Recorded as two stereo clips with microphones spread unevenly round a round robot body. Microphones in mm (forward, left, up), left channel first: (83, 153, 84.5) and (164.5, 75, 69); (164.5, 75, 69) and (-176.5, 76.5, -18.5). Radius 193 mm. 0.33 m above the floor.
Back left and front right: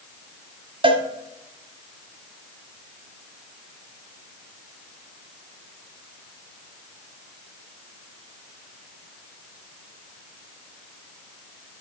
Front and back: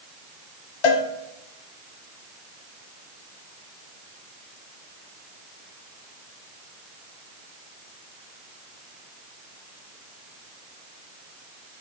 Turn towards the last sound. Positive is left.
turn(degrees=0)